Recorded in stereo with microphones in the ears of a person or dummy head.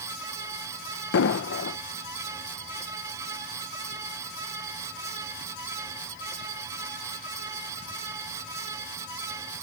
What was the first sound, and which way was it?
An explosion, 60° left (ahead or behind).